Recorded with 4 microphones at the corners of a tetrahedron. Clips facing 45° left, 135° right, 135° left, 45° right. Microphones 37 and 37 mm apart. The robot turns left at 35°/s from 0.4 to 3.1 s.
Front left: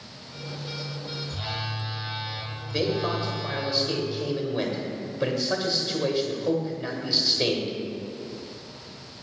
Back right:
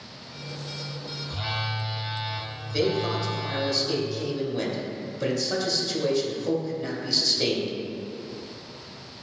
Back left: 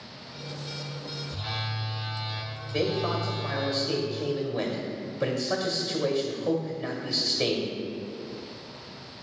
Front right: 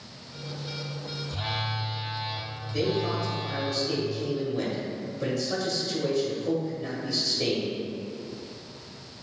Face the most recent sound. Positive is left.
turn(degrees=90)